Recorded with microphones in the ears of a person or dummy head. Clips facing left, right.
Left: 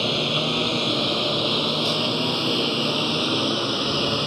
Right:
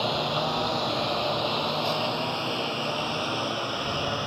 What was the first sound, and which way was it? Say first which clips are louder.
A lawn mower: left 2 dB; 40° left (ahead or behind).